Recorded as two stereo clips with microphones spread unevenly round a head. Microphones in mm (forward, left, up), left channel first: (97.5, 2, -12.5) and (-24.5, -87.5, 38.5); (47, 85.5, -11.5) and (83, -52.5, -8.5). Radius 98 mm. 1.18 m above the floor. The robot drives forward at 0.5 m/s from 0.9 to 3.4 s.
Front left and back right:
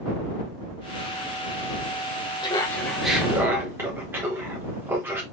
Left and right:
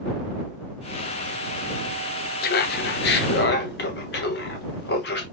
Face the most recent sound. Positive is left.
turn(degrees=135)